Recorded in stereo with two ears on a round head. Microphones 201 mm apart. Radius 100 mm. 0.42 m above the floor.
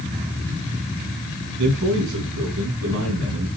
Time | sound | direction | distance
1.6 | a man speaking | 60° right (ahead or behind) | 4 m